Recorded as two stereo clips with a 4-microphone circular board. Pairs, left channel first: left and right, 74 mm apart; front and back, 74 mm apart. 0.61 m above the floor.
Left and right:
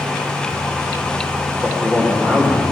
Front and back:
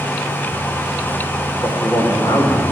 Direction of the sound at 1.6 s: 25° right.